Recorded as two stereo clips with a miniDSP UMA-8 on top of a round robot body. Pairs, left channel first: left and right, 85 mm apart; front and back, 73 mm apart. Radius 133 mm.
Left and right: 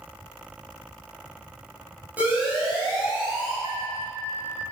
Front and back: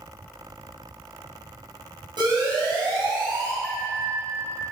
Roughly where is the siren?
Behind.